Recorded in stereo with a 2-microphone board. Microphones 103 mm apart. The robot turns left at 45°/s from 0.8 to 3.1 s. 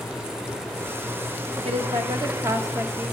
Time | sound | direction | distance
1.6 | a woman speaking | 105° right | 1.0 m